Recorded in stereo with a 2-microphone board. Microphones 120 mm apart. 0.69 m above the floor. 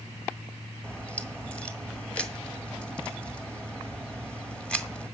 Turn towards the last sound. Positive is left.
turn(degrees=10)  # may be behind; listen again after turning